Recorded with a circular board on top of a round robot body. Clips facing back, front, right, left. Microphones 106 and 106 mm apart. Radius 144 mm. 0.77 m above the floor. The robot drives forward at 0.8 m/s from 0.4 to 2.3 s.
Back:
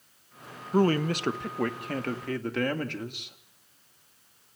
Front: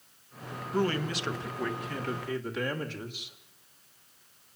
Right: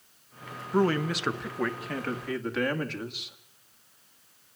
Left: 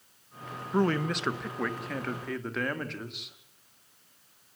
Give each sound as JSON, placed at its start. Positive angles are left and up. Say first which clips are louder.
{"t": 0.7, "sound": "a man speaking", "louder": "back 6 dB, right 2 dB", "azimuth_deg": -175, "distance_m": 1.1}